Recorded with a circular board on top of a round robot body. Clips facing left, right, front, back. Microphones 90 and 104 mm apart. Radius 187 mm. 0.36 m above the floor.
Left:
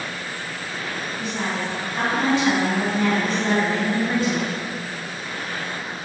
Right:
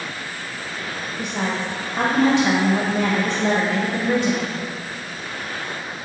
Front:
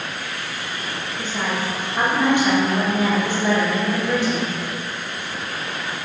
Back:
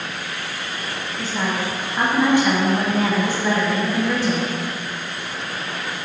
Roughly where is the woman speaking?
Right.